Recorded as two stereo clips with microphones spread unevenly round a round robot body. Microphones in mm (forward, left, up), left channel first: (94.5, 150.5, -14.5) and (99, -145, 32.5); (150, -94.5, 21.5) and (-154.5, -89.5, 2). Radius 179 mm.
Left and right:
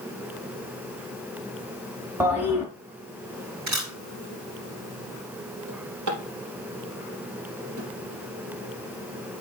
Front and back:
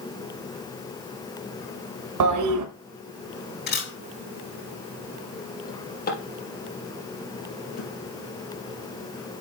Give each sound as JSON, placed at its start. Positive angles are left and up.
{"t": 2.2, "sound": "a toilet flushing", "azimuth_deg": 180, "distance_m": 1.2}
{"t": 3.7, "sound": "a camera shutter", "azimuth_deg": -55, "distance_m": 5.0}
{"t": 5.7, "sound": "a drawer", "azimuth_deg": -60, "distance_m": 3.5}